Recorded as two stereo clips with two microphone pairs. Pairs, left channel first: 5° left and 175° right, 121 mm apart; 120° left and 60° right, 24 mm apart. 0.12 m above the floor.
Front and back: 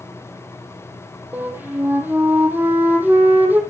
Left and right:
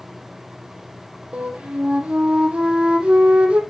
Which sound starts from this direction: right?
A flute, at 1.3 s.